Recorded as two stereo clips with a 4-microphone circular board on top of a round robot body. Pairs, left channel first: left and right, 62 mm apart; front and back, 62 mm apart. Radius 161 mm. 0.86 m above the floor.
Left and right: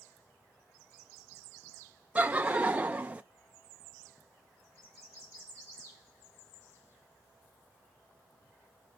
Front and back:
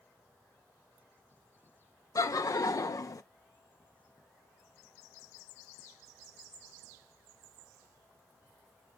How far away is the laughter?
About 0.6 m.